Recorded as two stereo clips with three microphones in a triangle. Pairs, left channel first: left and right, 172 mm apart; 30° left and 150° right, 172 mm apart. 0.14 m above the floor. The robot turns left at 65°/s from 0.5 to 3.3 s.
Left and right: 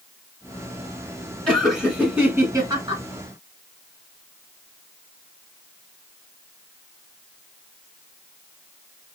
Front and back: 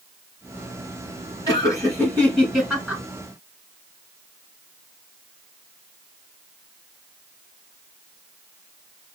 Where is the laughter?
15° left, 1.6 m; by 3.0 s 90° right, 1.6 m.